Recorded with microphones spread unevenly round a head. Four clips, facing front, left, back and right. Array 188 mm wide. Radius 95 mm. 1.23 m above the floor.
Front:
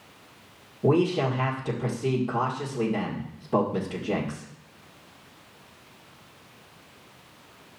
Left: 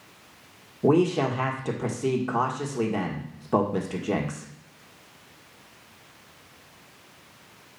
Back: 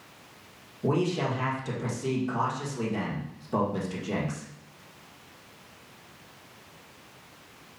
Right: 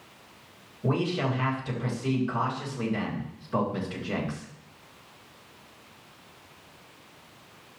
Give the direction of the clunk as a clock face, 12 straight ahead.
I don't hear a clunk.